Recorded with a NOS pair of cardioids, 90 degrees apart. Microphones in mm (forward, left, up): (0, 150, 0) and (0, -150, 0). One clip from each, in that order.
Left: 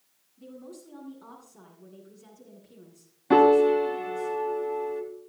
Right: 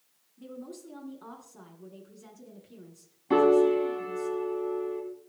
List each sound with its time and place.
0.4 s a woman speaking: 20° right, 9 m
3.3 s a piano: 40° left, 3 m